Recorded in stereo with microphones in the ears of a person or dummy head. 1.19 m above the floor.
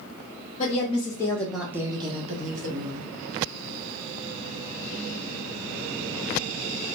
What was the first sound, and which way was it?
A woman speaking, 40° left (ahead or behind).